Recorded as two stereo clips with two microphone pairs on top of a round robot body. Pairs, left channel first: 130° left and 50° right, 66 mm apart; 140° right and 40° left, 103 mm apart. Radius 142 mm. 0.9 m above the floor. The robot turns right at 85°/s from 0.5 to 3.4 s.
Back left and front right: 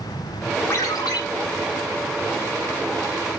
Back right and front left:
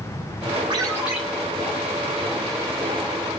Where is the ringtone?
85° left, 3 m; by 1.2 s 130° left, 3 m.